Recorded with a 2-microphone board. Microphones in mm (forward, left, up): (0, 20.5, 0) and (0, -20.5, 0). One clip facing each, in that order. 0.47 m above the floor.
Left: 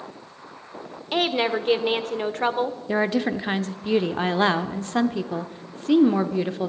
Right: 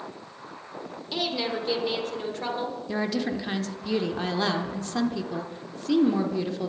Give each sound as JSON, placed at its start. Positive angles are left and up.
{"t": 1.1, "sound": "a woman speaking", "side_deg": 50, "distance_m": 1.0}
{"t": 2.9, "sound": "a woman speaking", "side_deg": 35, "distance_m": 0.8}